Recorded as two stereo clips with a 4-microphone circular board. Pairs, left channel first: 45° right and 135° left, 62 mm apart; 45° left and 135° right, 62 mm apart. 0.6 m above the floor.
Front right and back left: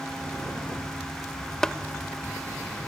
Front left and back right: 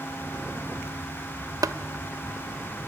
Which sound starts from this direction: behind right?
Tapping, at 1.6 s.